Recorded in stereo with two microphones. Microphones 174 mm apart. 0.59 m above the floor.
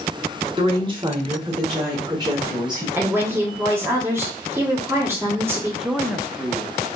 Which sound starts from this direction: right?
A woman speaking, at 0.6 s.